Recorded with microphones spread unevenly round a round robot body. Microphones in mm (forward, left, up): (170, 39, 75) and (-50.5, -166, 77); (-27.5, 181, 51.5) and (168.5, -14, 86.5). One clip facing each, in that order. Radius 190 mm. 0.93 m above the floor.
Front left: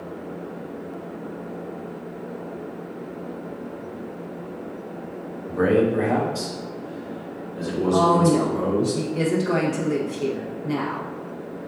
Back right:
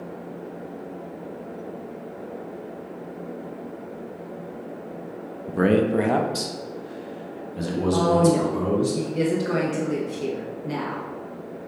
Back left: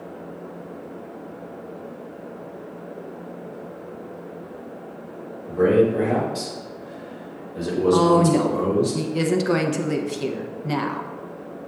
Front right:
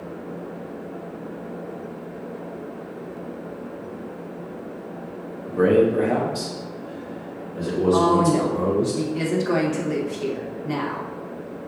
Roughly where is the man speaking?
Right.